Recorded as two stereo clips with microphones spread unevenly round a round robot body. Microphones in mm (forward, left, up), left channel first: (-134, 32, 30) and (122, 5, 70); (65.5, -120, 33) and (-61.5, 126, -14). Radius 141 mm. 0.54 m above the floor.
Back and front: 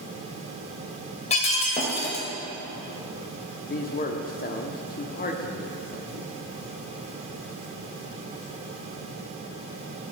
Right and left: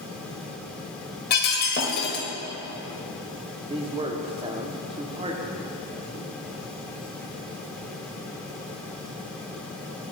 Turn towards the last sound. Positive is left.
turn(degrees=170)